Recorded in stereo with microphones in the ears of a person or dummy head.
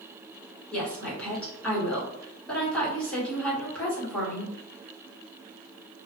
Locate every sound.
0.7 s a woman speaking: 5° left (ahead or behind), 1.3 m